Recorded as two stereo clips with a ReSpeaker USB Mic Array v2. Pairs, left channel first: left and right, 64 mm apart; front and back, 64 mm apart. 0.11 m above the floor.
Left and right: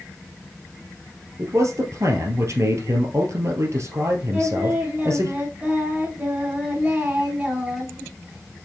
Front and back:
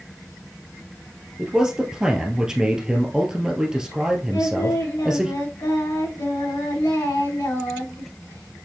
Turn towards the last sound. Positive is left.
turn(degrees=-15)